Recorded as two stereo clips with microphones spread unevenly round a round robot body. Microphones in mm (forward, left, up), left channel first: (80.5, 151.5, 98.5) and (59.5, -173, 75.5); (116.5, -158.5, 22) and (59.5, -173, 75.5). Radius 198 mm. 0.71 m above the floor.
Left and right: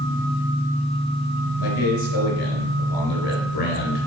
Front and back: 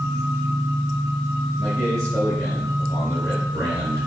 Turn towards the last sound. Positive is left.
turn(degrees=115)